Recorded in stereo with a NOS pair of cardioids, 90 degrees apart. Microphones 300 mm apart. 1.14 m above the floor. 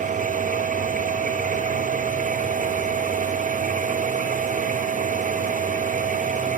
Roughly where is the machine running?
Ahead right.